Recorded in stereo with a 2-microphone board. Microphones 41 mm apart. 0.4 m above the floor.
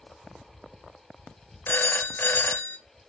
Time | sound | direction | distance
1.7 | a phone ringing | 60° left (ahead or behind) | 1.1 m